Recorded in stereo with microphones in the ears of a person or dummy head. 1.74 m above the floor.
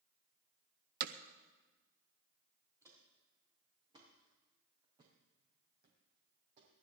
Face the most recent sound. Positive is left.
turn(degrees=-40)  # may be behind; listen again after turning